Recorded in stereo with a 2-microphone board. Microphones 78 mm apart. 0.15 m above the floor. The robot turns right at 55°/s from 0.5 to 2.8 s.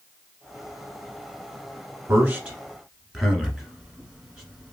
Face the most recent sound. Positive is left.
turn(degrees=-10)  # may be behind; listen again after turning